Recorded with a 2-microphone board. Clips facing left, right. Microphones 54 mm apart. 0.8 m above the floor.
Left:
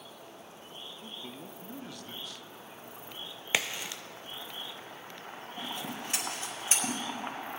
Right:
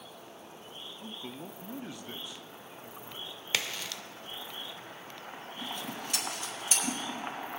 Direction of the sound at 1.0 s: 15° right (ahead or behind).